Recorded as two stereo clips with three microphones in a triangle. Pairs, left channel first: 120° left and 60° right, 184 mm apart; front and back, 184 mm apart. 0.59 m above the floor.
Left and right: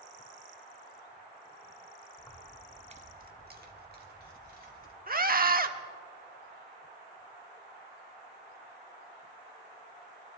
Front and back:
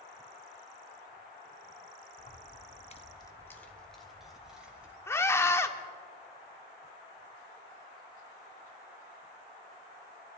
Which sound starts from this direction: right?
A scream, at 5.1 s.